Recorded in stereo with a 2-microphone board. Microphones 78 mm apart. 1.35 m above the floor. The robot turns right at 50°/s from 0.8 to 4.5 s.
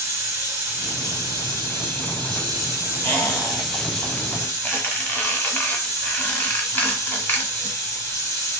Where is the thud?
No thud in this recording.